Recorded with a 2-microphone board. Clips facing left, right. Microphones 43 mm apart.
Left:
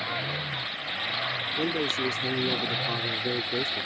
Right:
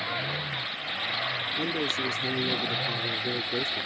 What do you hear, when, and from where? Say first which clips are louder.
1.6 s a man speaking: left 3 dB; 60° left (ahead or behind)